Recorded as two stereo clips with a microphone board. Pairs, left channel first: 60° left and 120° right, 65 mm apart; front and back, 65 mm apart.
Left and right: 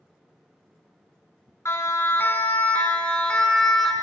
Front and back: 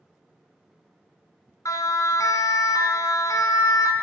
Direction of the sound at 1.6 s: 20° left.